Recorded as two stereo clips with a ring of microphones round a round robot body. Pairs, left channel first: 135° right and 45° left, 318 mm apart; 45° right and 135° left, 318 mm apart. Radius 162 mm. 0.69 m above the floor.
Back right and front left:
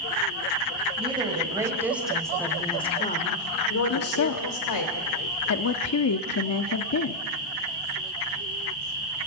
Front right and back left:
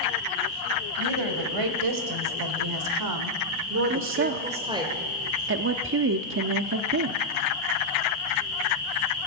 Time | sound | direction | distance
1.0 | a woman speaking | 120° left | 4.5 m
3.9 | a woman speaking | 175° right | 0.9 m